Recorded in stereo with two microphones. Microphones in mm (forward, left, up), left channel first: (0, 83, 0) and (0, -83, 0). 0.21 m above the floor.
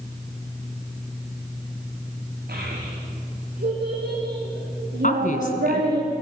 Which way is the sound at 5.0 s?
55° left (ahead or behind).